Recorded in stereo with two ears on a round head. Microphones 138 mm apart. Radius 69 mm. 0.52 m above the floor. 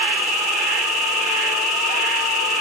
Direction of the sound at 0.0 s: 5° right (ahead or behind).